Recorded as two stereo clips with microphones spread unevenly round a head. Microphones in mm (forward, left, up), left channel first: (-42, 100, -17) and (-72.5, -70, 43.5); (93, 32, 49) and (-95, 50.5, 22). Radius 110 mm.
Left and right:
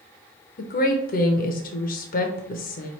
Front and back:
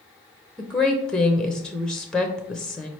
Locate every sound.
0.6 s a woman speaking: 85° left, 0.6 m